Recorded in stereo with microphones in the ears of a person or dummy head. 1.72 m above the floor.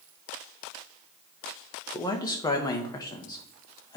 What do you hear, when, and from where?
1.9 s a man speaking: 20° left (ahead or behind), 1.0 m